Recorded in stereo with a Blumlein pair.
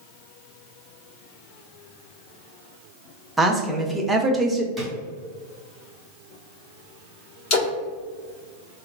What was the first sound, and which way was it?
A woman speaking, 10° right.